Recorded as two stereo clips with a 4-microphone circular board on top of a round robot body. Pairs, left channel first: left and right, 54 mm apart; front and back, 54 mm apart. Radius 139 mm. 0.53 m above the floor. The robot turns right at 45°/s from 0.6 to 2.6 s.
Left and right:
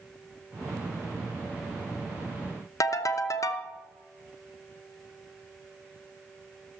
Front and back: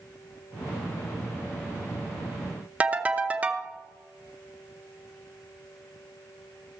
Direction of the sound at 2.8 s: 115° left.